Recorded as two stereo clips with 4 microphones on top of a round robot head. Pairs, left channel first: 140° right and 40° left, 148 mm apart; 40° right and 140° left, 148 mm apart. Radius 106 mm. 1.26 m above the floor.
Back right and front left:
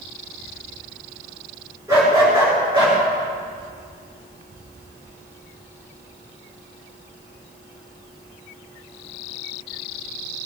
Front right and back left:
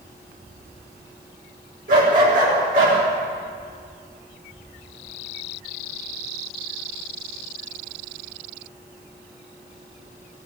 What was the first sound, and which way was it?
A dog barking, 110° left.